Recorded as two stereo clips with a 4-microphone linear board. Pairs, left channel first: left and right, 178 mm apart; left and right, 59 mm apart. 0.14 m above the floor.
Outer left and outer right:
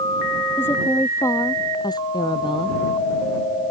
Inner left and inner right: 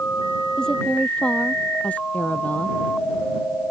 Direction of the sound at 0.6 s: 10° left (ahead or behind).